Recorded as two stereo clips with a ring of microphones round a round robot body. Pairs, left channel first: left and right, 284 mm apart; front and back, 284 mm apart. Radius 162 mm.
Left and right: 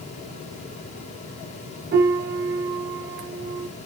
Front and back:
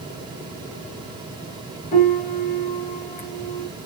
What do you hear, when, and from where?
1.9 s a piano: 55° right, 0.7 m